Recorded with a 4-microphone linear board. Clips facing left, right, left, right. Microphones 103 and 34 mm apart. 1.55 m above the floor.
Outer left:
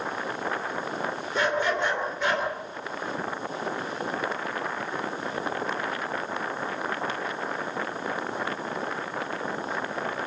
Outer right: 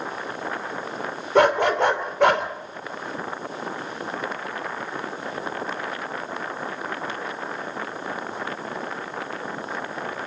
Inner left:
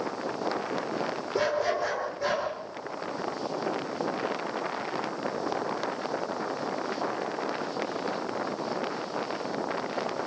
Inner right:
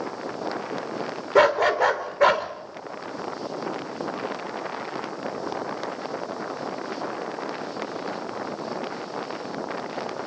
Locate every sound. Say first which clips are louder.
1.4 s a dog barking: outer right 8 dB, inner right 9 dB; 70° right (ahead or behind), 2.5 m